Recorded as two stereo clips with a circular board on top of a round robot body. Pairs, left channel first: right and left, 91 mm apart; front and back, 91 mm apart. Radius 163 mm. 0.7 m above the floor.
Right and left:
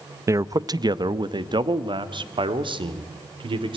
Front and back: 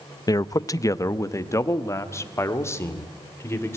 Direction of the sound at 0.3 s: 40° left.